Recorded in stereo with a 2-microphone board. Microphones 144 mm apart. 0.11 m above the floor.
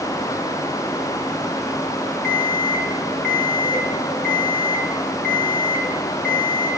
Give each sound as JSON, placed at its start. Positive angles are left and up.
{"t": 2.2, "sound": "an alarm clock", "side_deg": -80, "distance_m": 3.5}